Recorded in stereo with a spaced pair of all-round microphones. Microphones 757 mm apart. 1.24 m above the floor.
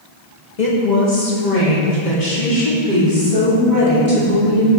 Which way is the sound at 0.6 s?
65° left (ahead or behind).